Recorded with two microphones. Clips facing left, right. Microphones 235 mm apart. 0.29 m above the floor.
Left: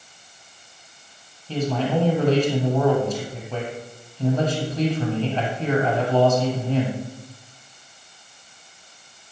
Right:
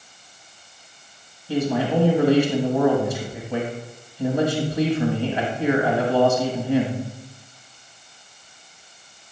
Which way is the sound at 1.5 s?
10° right (ahead or behind).